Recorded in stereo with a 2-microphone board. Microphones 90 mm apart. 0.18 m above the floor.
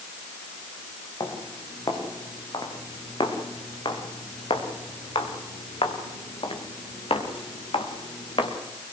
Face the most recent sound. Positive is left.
turn(degrees=70)  # may be behind; listen again after turning